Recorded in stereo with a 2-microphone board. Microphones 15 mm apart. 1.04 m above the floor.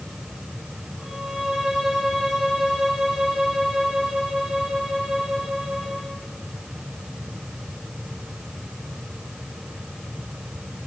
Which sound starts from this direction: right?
A violin, at 1.0 s.